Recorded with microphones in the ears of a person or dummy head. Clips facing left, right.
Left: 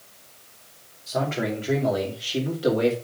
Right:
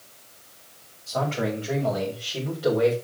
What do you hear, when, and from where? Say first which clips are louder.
1.1 s a man speaking: left 1 dB; 20° left (ahead or behind), 4 m; by 3.0 s 35° left (ahead or behind), 2.5 m